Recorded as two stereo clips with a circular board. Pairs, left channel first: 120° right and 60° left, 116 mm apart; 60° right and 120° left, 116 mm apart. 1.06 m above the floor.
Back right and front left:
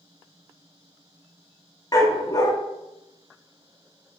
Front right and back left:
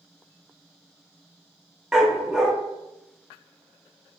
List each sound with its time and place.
1.9 s a dog barking: 155° right, 0.6 m